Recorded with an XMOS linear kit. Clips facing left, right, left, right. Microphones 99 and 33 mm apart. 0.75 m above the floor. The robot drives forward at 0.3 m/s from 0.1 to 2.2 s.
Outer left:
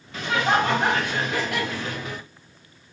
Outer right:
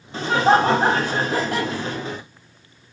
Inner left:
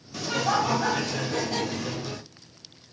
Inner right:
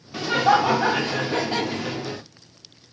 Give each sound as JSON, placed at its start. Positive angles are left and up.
{"t": 0.1, "sound": "laughter", "side_deg": -30, "distance_m": 0.8}